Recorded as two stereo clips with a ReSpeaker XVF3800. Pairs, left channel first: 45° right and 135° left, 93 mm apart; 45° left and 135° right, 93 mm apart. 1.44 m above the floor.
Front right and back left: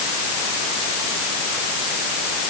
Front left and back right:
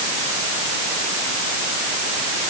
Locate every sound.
Only background noise.